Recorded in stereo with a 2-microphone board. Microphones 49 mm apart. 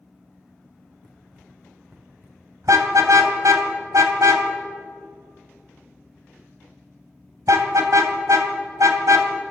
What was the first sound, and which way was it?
Running footsteps, 10° right (ahead or behind).